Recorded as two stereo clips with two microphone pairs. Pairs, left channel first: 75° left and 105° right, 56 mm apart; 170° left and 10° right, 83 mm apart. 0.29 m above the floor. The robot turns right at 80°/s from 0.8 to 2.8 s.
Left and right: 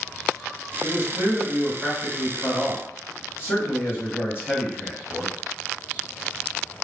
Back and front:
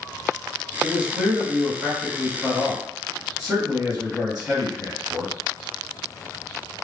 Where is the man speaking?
100° right, 1.8 m; by 5.3 s 60° left, 1.8 m.